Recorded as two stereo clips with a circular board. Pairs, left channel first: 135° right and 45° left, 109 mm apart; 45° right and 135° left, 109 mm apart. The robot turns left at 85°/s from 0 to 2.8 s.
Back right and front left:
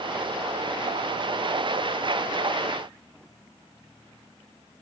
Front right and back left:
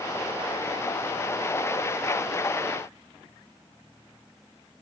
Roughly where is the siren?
I don't hear a siren.